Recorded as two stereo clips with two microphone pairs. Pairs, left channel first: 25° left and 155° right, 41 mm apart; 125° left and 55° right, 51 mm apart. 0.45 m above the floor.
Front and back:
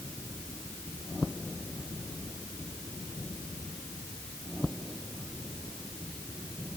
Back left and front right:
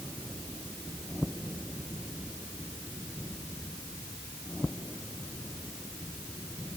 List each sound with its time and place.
Only background noise.